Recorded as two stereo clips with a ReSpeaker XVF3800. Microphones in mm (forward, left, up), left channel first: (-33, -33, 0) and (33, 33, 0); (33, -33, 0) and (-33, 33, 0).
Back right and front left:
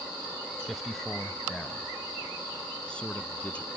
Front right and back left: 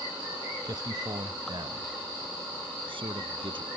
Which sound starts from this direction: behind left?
A man speaking, at 0.7 s.